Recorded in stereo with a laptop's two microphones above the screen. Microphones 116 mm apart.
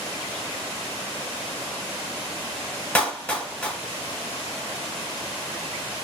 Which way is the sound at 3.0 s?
15° left (ahead or behind).